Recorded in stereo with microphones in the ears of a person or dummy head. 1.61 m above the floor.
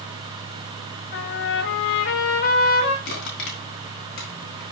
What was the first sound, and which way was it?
A trumpet, 65° left (ahead or behind).